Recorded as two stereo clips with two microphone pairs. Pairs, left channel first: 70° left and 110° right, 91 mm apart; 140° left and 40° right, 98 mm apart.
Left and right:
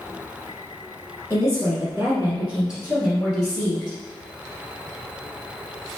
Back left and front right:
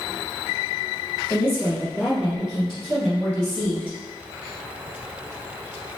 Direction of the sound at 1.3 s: 95° right.